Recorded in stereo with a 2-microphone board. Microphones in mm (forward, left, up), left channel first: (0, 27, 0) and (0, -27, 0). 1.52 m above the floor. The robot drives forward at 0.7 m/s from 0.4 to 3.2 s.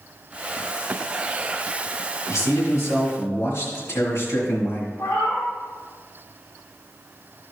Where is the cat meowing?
45° left (ahead or behind), 3 m.